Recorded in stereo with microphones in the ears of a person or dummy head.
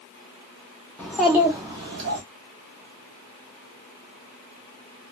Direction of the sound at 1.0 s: 10° left (ahead or behind).